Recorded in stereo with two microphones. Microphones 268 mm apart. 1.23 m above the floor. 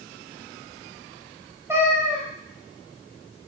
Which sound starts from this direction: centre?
A cat meowing, at 1.7 s.